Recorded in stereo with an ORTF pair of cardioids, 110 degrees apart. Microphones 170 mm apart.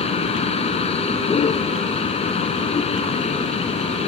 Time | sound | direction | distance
0.0 | a vehicle | 35° left | ?